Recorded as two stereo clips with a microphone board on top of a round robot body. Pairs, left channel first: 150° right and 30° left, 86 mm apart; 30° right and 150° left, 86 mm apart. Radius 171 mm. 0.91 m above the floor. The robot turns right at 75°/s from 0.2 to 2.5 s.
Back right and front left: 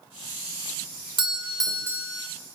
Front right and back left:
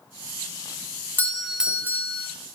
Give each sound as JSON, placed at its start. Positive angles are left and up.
{"t": 1.2, "sound": "a doorbell", "azimuth_deg": 35, "distance_m": 2.0}